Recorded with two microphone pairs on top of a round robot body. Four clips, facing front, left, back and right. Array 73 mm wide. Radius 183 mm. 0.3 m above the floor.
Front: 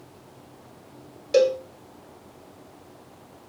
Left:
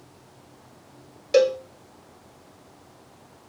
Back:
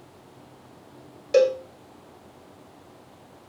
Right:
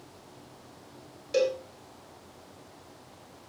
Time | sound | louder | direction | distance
1.3 | a cowbell | left 8 dB, even | 115° left | 3 m